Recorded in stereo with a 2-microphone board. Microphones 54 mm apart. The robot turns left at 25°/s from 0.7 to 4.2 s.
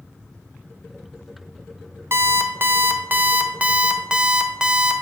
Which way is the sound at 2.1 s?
110° right.